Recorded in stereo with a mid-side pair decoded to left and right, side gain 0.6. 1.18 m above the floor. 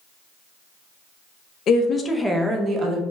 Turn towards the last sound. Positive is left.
turn(degrees=-35)